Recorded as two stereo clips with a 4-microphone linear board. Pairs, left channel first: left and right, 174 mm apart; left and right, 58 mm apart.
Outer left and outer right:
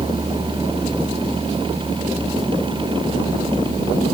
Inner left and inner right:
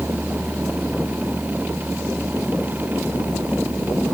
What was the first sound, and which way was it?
Only background noise.